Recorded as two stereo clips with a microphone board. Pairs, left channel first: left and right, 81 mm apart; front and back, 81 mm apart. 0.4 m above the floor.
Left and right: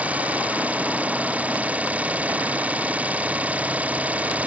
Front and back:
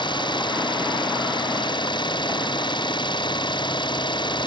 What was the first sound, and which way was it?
An engine running, 15° right.